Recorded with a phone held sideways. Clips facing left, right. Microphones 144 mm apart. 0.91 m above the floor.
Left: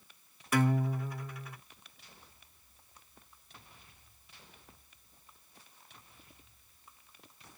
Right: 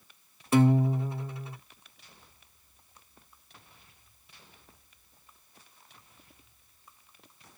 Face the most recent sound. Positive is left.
turn(degrees=-25)  # may be behind; listen again after turning